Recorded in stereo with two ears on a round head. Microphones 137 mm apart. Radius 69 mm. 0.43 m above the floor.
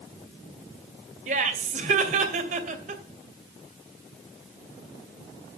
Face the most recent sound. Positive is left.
turn(degrees=-50)  # may be behind; listen again after turning